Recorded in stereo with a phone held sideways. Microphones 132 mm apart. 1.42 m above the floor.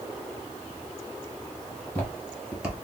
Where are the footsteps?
20° left (ahead or behind), 1.7 m; by 2.7 s 10° right (ahead or behind), 1.4 m.